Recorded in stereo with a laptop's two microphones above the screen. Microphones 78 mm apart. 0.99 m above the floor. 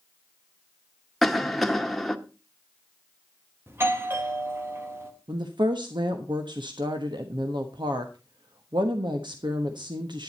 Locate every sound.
1.2 s a cough: centre (ahead or behind), 1.4 m
3.7 s a doorbell: 30° right (ahead or behind), 1.7 m
5.3 s a woman speaking: 70° right (ahead or behind), 1.2 m